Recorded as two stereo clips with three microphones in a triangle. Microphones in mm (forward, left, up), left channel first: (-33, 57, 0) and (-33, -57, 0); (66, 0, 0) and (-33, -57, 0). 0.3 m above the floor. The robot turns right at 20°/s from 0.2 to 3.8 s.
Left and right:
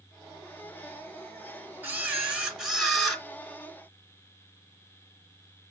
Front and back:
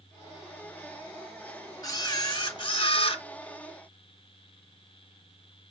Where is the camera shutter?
25° right, 0.9 m; by 3.2 s 5° left, 0.9 m.